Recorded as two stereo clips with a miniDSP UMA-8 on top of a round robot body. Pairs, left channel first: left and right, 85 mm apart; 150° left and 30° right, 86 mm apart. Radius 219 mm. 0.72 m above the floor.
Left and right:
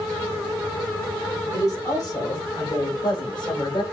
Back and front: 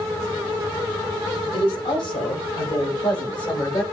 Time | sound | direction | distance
1.5 | a woman speaking | 140° left | 4.5 m